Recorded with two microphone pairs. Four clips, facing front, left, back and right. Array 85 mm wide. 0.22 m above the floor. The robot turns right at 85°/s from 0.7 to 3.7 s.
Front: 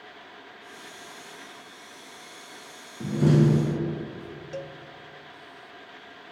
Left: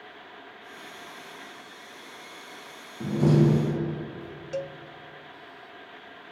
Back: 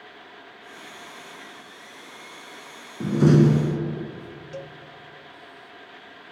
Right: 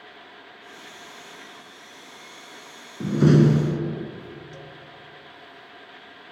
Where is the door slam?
155° right, 1.8 m; by 4.1 s 95° right, 1.8 m.